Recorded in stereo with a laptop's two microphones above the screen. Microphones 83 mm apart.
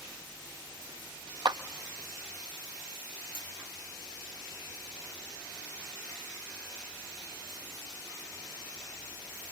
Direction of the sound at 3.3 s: 85° left.